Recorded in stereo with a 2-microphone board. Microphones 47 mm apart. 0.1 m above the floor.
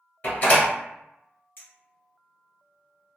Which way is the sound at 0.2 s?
35° left (ahead or behind).